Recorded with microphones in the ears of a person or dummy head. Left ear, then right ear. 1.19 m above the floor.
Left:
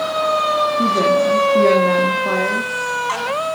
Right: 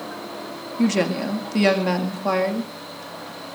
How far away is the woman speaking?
About 2.5 m.